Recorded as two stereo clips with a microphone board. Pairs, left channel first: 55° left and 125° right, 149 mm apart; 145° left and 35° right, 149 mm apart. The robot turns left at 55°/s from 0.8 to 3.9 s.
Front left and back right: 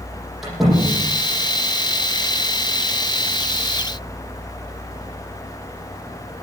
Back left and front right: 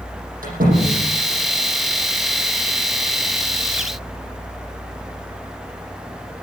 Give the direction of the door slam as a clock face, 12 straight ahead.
1 o'clock.